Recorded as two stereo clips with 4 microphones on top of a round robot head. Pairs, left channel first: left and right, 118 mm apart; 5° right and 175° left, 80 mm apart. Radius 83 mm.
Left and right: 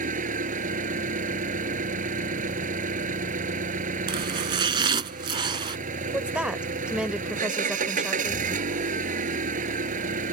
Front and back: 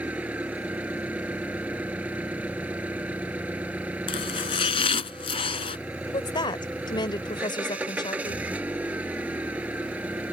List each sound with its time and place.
0.0 s an engine running: 105° right
4.1 s chopping: 30° right
6.1 s a woman speaking: 10° right